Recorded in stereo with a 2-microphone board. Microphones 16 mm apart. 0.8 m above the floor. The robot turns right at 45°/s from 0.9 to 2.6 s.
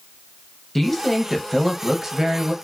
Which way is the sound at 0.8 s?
155° left.